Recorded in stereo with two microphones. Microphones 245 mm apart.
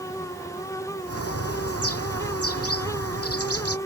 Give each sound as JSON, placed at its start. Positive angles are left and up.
{"t": 1.1, "sound": "a bird", "side_deg": 70}